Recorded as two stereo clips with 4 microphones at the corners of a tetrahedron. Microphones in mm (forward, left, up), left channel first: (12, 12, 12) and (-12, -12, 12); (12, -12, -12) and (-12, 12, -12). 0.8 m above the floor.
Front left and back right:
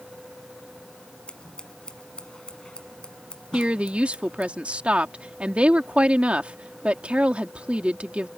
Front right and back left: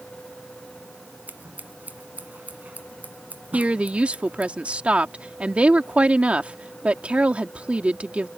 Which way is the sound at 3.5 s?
Straight behind.